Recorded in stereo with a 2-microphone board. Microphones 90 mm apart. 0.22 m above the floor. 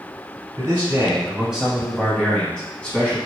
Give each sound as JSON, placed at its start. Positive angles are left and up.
{"t": 0.6, "sound": "a man speaking", "side_deg": -25, "distance_m": 1.1}